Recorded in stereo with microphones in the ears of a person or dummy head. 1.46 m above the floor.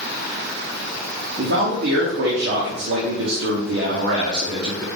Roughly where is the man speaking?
Right.